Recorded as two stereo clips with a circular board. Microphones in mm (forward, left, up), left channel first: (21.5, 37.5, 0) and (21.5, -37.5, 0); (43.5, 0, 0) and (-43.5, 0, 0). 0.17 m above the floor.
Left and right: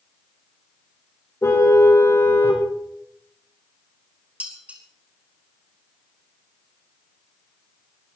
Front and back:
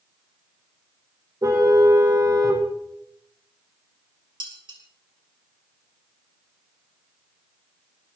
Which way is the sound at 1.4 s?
135° left.